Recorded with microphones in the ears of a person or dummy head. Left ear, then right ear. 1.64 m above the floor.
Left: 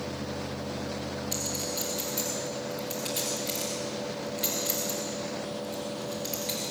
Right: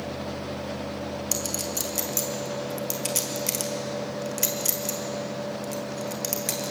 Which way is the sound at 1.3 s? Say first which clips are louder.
Right 3 dB; 50° right (ahead or behind).